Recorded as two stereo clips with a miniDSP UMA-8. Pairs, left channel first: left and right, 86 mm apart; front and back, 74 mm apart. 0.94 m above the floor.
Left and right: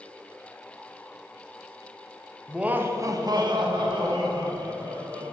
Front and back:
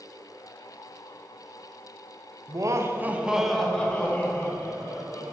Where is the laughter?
170° right, 1.1 m; by 5.2 s 60° right, 3 m.